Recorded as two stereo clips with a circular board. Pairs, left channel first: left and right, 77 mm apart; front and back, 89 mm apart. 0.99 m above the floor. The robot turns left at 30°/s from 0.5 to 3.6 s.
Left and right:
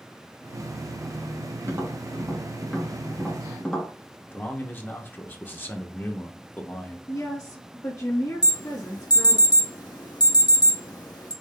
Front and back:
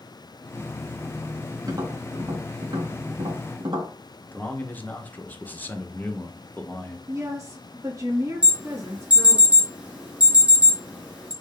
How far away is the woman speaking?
About 1.9 m.